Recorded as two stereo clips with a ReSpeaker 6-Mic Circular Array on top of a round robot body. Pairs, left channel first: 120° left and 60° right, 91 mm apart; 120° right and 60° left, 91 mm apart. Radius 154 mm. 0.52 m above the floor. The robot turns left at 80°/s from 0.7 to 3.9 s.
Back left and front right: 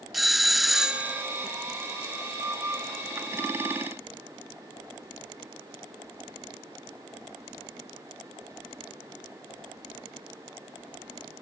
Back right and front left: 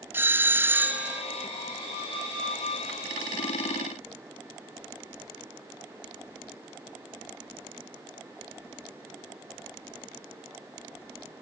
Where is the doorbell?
25° left; by 1.2 s 15° right.